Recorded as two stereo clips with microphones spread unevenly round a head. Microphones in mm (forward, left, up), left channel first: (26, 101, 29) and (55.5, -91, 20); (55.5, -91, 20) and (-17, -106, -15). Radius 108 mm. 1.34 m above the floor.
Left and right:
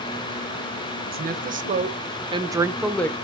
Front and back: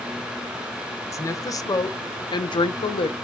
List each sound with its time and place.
1.1 s a woman speaking: 35° right, 1.2 m; by 3.1 s 20° left, 0.5 m